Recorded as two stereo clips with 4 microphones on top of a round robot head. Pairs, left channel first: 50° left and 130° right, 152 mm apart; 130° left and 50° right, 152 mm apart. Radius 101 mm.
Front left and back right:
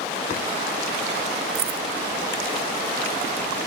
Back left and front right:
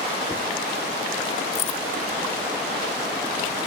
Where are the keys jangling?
175° left.